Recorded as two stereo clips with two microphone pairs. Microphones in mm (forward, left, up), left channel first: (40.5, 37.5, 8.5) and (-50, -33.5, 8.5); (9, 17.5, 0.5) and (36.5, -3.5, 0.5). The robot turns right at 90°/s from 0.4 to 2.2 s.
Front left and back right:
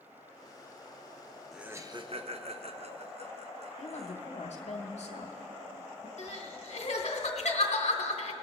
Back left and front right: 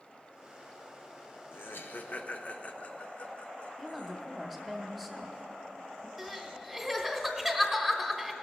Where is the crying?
50° left, 1.2 m.